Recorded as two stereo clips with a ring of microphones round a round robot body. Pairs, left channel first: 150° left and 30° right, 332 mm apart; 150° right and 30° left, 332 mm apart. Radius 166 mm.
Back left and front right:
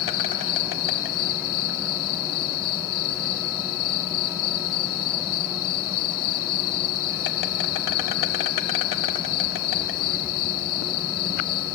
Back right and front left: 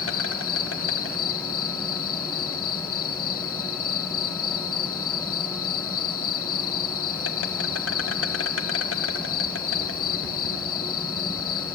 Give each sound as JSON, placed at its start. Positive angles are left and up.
{"t": 0.0, "sound": "an insect", "azimuth_deg": 165, "distance_m": 1.2}